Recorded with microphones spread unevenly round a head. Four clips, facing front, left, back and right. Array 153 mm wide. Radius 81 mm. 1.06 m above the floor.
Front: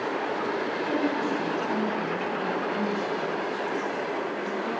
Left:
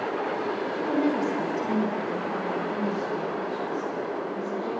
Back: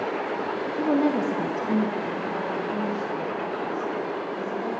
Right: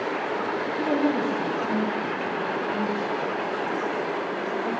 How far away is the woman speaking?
About 1.1 m.